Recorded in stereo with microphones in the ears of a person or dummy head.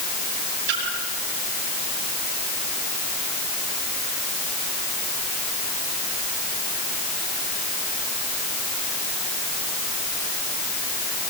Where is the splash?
60° right (ahead or behind), 8 m.